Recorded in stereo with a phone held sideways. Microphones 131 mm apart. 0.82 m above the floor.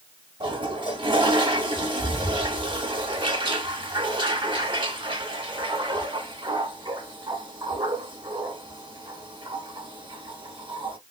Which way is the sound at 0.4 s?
40° right (ahead or behind).